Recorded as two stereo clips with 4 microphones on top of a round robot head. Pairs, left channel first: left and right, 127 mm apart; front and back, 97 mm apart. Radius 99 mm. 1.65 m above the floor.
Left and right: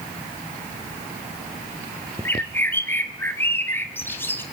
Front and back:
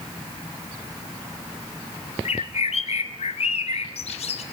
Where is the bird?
15° left, 2.0 m.